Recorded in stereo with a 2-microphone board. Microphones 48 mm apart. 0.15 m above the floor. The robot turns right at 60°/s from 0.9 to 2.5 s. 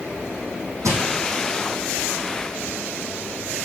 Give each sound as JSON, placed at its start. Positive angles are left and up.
{"t": 0.8, "sound": "crushing", "side_deg": -80, "distance_m": 3.0}